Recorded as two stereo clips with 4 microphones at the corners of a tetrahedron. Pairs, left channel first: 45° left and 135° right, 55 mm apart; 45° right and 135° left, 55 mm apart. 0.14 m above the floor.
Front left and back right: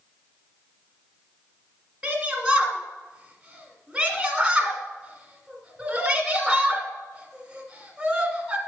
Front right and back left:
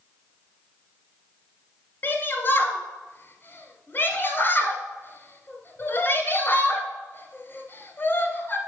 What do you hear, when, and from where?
2.0 s a shout: 60° right, 1.5 m